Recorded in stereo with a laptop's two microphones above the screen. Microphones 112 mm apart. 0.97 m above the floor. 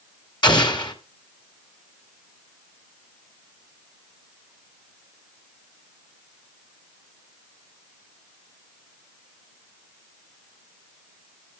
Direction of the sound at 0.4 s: 45° left (ahead or behind).